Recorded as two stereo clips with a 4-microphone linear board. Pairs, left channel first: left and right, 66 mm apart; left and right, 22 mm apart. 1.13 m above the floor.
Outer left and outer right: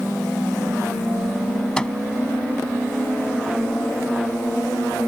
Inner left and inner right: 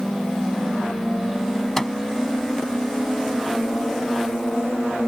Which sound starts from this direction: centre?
A microwave, at 1.8 s.